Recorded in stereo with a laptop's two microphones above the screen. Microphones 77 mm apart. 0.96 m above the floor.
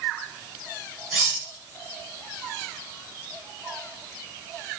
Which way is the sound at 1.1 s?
15° right (ahead or behind).